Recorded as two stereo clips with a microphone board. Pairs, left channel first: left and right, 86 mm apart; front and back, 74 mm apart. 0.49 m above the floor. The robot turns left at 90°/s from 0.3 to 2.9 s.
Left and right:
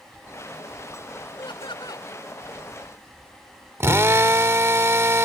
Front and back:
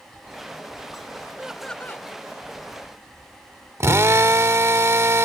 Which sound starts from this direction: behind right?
A drill, at 3.8 s.